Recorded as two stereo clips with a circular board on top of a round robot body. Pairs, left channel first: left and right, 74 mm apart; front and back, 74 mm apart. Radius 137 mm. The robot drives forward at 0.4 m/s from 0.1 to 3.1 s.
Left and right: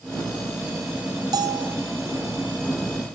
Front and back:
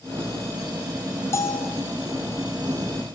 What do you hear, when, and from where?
1.3 s a bell: 55° right, 1.8 m; by 1.8 s 60° right, 1.7 m